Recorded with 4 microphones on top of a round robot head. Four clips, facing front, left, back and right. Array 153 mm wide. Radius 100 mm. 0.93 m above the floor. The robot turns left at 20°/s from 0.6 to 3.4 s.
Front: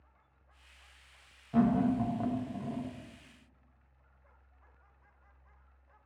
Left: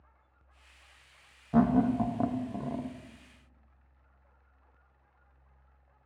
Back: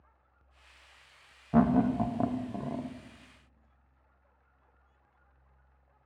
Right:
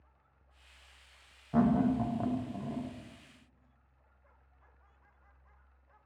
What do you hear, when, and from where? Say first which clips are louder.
1.5 s laughter: left 3 dB, back 2 dB; 160° left, 0.5 m; by 2.9 s 135° left, 0.5 m